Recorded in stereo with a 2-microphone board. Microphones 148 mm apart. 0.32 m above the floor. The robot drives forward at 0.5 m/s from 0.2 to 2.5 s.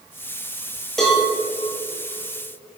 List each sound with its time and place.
1.0 s a cowbell: centre (ahead or behind), 2.5 m